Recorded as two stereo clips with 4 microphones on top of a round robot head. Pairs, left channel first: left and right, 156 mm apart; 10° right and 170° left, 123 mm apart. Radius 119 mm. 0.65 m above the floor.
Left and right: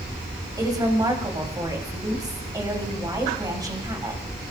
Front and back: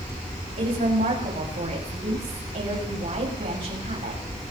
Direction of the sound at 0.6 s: 155° right.